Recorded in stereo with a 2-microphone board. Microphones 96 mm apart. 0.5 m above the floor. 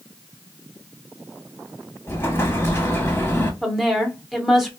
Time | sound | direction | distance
2.1 | an explosion | 25° left (ahead or behind) | 0.7 m
3.6 | a woman speaking | centre (ahead or behind) | 0.7 m